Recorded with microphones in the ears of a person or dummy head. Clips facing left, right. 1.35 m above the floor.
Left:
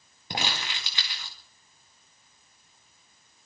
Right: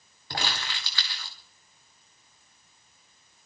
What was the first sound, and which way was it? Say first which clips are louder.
Crumpling: left 1 dB; 20° left (ahead or behind).